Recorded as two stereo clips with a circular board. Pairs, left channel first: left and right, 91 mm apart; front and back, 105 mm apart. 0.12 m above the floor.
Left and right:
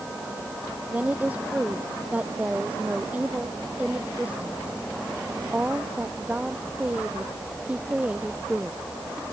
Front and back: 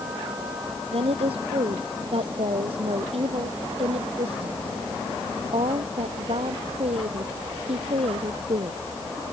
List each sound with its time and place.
0.9 s a woman speaking: 165° right